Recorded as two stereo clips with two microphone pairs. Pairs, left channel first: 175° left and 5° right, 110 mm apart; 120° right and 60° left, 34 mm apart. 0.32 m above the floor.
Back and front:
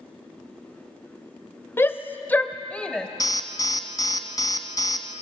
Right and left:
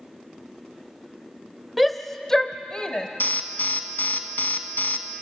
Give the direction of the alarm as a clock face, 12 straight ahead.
4 o'clock.